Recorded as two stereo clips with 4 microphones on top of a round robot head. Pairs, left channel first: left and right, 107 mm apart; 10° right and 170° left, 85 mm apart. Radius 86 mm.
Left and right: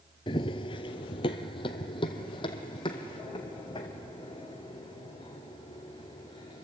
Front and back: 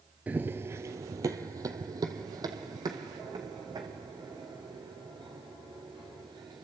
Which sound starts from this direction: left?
Running footsteps, at 0.3 s.